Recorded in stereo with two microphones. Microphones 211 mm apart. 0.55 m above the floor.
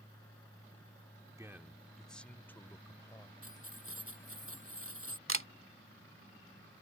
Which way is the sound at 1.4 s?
15° right (ahead or behind).